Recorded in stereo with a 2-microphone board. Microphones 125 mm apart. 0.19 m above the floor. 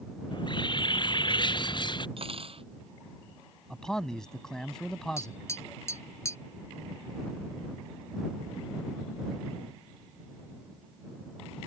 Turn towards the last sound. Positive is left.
turn(degrees=25)  # may be behind; listen again after turning